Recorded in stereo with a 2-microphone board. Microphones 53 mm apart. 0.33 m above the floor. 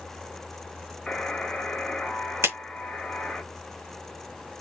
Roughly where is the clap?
Right.